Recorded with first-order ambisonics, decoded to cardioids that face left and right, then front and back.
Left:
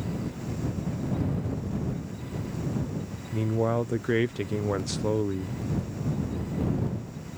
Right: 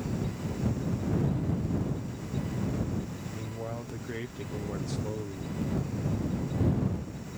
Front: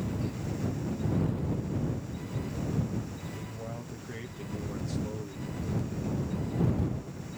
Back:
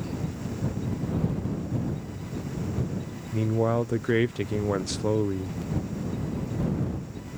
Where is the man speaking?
140° left.